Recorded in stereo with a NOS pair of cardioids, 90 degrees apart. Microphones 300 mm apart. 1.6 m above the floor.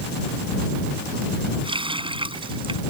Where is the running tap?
15° right.